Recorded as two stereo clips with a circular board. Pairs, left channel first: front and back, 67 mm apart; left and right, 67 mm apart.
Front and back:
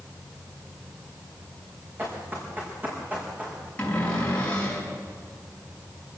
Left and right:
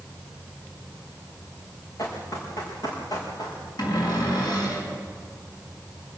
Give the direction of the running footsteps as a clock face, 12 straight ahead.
8 o'clock.